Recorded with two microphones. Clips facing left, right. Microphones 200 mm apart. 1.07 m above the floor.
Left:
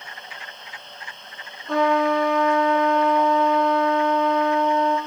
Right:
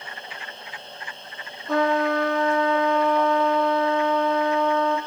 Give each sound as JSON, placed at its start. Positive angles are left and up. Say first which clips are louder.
{"t": 1.7, "sound": "a trumpet", "louder": "left 2 dB", "side_deg": 0, "distance_m": 2.5}